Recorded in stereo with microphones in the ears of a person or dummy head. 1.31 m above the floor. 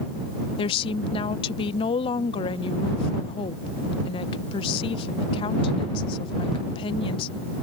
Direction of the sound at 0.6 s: 25° left (ahead or behind).